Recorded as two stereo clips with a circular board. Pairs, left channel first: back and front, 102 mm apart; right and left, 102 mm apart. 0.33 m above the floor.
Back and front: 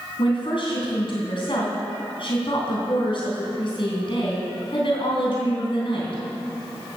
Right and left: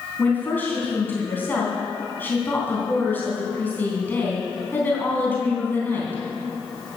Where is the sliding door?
No sliding door in this recording.